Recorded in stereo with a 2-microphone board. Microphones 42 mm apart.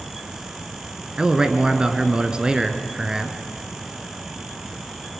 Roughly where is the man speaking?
Right.